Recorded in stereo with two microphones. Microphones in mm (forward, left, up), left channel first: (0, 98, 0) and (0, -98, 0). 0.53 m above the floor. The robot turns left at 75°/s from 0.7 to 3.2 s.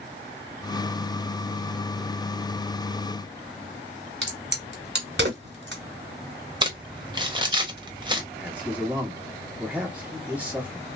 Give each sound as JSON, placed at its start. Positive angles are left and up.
{"t": 4.2, "sound": "a crack", "side_deg": -60, "distance_m": 1.3}
{"t": 6.6, "sound": "crumpling", "side_deg": -25, "distance_m": 0.6}
{"t": 8.3, "sound": "a man speaking", "side_deg": -5, "distance_m": 1.4}